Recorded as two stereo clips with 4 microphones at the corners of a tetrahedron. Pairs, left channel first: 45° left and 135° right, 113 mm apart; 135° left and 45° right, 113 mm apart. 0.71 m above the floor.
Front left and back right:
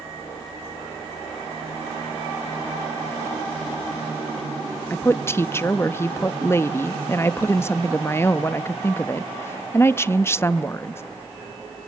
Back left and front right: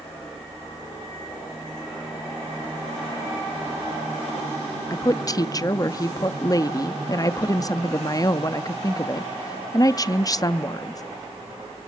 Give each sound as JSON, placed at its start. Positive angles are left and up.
{"t": 4.9, "sound": "a woman speaking", "azimuth_deg": 100, "distance_m": 0.6}